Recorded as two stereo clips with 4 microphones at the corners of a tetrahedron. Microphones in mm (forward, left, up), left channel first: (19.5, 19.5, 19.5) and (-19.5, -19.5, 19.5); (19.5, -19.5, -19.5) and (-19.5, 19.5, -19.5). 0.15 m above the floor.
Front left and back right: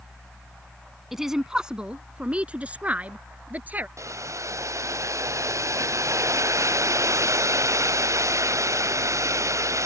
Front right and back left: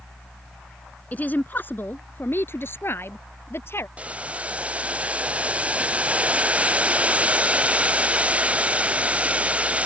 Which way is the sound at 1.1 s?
55° right.